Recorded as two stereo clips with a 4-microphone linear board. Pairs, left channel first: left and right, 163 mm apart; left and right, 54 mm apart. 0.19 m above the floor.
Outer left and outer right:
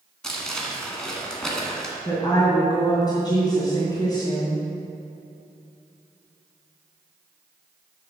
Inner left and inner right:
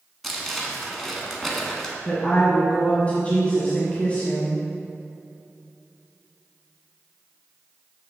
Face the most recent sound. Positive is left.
turn(degrees=25)  # may be behind; listen again after turning